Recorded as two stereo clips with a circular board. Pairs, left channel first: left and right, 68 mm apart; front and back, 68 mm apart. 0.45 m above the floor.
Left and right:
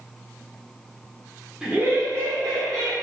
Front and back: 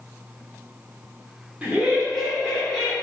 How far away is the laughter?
About 0.7 m.